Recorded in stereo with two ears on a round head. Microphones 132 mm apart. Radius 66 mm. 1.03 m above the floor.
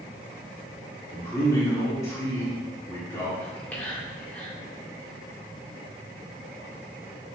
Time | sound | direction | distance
1.1 | a man speaking | 20° left (ahead or behind) | 2.5 m
3.4 | whispering | 10° left (ahead or behind) | 2.5 m